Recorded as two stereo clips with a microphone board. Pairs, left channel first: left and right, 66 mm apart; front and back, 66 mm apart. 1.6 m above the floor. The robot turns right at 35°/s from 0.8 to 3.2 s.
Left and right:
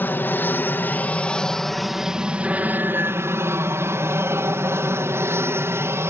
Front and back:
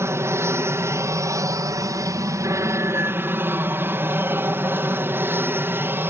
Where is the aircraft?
145° left; by 6.1 s 130° right.